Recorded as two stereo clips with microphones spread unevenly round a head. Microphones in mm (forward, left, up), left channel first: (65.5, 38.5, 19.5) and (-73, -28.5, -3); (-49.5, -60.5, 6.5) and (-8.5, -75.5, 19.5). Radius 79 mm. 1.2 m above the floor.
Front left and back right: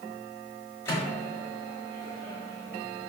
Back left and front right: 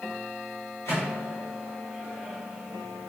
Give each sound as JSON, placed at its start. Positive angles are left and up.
{"t": 0.8, "sound": "a microwave", "azimuth_deg": 95, "distance_m": 1.4}